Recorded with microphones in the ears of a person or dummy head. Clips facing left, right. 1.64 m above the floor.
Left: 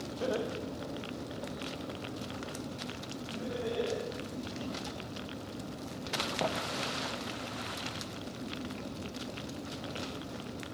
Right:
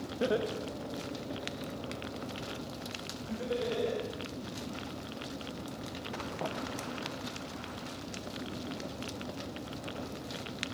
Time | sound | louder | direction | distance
0.2 | laughter | right 3 dB | 25° right (ahead or behind) | 1.3 m